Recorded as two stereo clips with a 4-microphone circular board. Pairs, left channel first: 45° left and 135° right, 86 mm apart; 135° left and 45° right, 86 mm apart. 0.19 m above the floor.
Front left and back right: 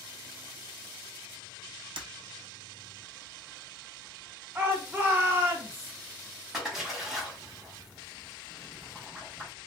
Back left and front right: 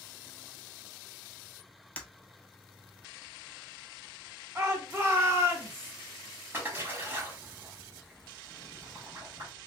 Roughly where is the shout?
Right.